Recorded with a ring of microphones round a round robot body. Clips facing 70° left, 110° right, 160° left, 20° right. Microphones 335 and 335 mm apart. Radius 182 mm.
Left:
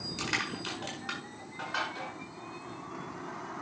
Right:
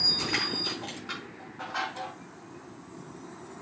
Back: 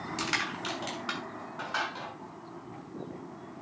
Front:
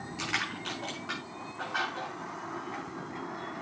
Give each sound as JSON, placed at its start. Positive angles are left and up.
{"t": 0.2, "sound": "crushing", "azimuth_deg": 120, "distance_m": 6.5}